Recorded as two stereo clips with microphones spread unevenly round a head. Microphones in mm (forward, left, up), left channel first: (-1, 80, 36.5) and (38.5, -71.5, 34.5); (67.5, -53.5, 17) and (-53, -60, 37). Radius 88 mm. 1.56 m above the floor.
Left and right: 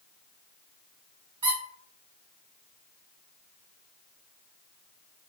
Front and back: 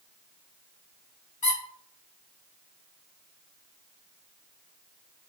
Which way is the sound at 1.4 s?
20° right.